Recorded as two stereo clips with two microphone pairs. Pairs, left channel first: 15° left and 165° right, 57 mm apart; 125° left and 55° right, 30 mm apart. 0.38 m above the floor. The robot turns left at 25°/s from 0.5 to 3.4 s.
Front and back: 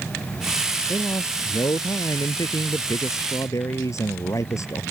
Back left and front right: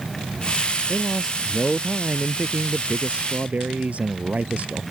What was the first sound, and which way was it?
A man speaking, 50° left.